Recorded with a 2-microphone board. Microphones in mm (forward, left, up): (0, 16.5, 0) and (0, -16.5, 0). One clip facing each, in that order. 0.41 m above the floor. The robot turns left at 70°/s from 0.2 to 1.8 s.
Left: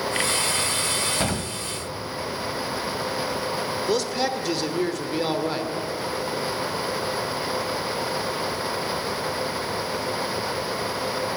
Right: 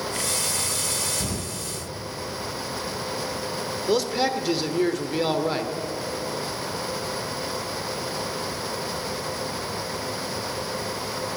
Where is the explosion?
70° left (ahead or behind), 1.5 m; by 1.6 s 55° left (ahead or behind), 1.5 m.